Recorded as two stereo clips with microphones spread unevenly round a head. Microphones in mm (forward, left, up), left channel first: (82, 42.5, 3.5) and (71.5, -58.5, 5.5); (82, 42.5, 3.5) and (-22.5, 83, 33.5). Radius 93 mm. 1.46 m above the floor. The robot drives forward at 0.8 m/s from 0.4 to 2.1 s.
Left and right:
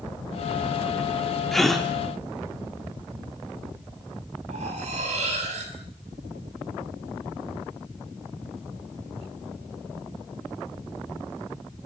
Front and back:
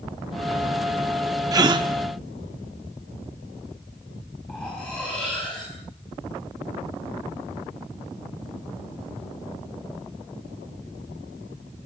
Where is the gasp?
175° left, 1.2 m.